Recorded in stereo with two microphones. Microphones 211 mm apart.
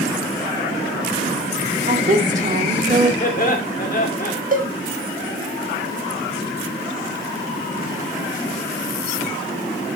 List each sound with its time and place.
1.9 s a woman speaking: 35° right (ahead or behind), 1.7 m
3.2 s laughter: 45° left (ahead or behind), 1.7 m
4.5 s a cowbell: 40° right (ahead or behind), 1.1 m